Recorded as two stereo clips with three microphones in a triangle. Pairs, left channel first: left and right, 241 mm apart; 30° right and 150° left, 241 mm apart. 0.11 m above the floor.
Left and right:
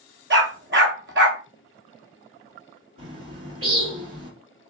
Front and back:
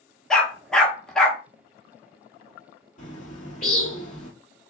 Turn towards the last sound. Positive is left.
turn(degrees=-80)